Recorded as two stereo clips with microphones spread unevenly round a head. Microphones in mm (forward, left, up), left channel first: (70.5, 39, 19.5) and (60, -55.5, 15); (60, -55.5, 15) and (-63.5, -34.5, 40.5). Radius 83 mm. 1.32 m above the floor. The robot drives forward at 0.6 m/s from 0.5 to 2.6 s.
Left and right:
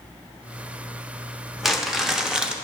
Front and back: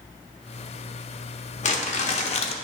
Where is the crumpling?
10° right, 1.3 m; by 2.5 s 15° right, 0.8 m.